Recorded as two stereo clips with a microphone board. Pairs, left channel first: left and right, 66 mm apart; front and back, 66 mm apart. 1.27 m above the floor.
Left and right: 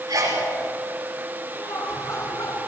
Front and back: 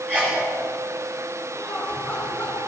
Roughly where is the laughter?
Left.